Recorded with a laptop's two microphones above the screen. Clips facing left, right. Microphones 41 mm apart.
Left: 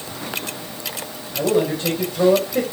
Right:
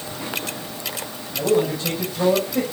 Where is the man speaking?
30° left (ahead or behind), 5 m.